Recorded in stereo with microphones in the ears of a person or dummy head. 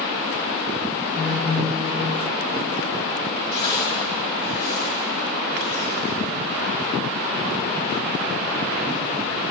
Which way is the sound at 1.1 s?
Centre (ahead or behind).